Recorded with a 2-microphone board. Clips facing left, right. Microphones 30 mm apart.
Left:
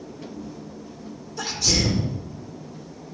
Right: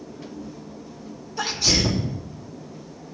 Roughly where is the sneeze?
Centre.